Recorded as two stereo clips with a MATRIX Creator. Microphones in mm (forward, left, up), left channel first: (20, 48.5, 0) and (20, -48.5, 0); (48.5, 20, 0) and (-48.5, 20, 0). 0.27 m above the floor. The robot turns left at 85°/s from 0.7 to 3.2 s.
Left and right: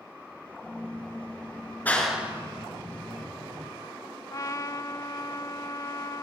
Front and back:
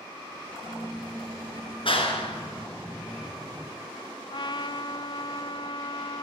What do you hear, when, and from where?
1.9 s a clap: 20° left, 3.5 m; by 3.7 s 95° right, 3.5 m
4.3 s a trumpet: 35° left, 0.6 m